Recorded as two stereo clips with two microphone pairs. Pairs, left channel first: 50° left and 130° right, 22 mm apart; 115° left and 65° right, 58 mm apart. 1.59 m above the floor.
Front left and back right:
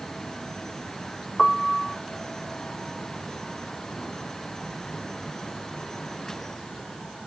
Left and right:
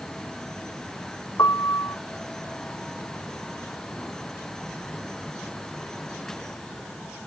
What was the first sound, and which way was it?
A piano, 140° left.